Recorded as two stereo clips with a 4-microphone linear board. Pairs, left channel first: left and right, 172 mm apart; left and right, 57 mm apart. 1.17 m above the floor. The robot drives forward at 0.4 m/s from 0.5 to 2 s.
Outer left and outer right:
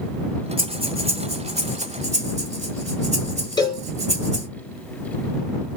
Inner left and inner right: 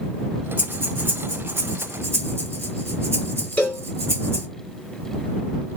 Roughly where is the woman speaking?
No woman speaking in this recording.